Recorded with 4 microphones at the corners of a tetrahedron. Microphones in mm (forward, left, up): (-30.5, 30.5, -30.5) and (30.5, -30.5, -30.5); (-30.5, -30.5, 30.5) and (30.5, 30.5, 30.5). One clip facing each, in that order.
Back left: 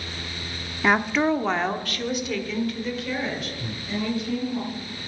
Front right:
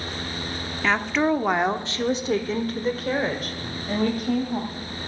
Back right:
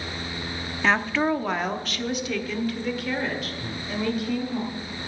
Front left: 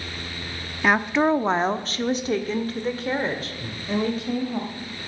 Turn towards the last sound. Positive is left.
turn(degrees=130)